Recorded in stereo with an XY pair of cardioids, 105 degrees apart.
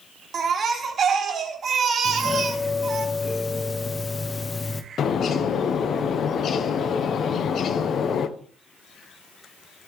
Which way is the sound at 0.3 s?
45° right.